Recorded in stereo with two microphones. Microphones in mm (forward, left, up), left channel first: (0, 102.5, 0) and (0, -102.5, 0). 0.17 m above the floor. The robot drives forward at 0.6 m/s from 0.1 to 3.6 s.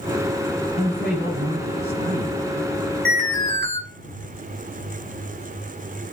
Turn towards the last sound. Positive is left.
turn(degrees=-55)  # may be behind; listen again after turning